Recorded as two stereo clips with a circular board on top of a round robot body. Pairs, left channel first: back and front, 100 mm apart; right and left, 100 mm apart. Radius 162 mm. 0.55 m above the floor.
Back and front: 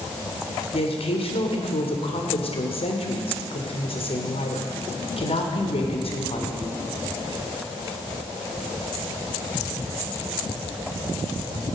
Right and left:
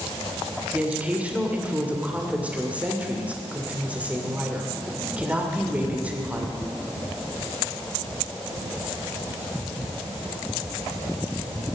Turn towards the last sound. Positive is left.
turn(degrees=165)